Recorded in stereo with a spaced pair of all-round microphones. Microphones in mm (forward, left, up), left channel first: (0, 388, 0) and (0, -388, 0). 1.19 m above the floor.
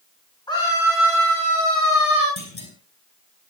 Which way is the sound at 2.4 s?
35° left (ahead or behind).